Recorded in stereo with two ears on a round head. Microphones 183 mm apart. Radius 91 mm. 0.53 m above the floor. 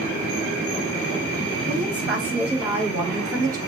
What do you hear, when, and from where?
1.7 s a woman speaking: 5° right (ahead or behind), 3 m; by 3.6 s 15° right (ahead or behind), 0.8 m